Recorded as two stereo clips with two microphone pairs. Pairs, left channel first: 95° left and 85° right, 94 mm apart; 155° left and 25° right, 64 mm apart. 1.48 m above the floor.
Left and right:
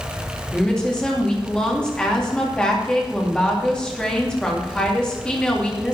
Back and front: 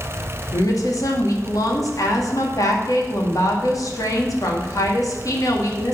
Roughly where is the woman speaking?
Behind.